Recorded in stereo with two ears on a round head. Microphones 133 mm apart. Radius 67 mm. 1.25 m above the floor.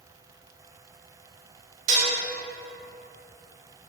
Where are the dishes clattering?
50° right (ahead or behind), 0.5 m.